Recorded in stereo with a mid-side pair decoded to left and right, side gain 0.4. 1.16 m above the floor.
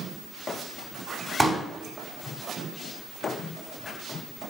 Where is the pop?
15° right, 2.5 m.